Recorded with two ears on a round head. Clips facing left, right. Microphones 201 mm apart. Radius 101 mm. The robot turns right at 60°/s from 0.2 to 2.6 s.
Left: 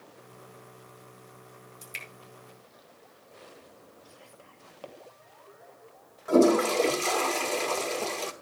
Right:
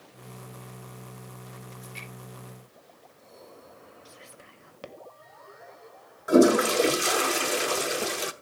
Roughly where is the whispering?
Right.